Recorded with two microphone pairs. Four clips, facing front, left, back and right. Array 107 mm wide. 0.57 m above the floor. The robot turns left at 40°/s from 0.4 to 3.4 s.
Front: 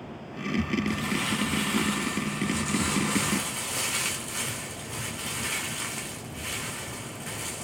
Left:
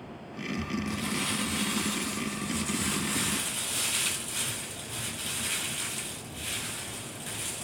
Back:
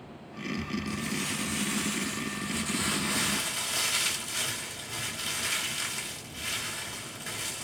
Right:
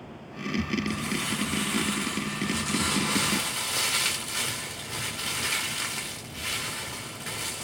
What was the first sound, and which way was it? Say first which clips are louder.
Crumpling: right 2 dB, front 5 dB; 20° left.